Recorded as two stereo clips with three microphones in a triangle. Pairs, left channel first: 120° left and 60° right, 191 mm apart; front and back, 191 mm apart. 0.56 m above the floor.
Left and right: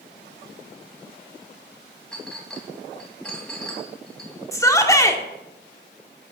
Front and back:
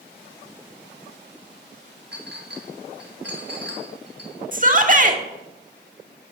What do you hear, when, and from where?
2.1 s a clink: 155° right, 2.5 m
4.5 s a shout: 175° right, 1.6 m